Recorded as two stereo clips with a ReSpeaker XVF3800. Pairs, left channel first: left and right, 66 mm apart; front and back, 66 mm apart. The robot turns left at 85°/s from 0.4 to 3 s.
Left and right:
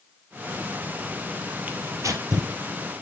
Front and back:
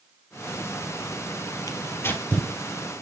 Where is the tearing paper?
20° right, 1.6 m; by 2.5 s 90° right, 1.6 m.